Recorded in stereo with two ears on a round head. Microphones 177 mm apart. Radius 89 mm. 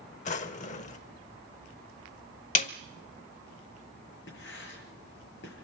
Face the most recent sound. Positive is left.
turn(degrees=60)  # may be behind; listen again after turning